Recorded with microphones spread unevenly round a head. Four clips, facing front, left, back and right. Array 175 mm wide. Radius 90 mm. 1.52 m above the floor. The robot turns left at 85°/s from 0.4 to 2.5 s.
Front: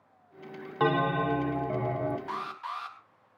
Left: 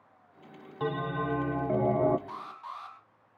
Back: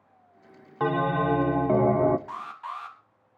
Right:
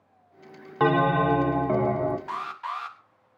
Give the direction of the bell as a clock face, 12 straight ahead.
3 o'clock.